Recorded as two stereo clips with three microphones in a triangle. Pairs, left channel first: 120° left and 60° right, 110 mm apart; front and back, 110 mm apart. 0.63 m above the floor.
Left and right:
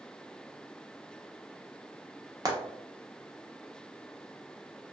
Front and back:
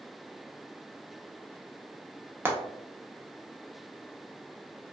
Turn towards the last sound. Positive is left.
turn(degrees=-110)